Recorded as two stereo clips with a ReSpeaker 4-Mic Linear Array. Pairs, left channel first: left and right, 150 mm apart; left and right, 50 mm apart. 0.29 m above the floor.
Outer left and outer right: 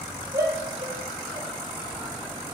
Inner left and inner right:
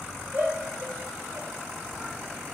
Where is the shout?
25° right (ahead or behind), 5 m.